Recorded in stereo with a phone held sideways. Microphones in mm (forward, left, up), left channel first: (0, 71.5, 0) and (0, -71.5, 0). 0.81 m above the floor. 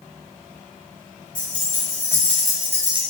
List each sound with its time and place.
1.4 s keys jangling: 35° left (ahead or behind), 1.4 m; by 3.0 s 35° right (ahead or behind), 0.6 m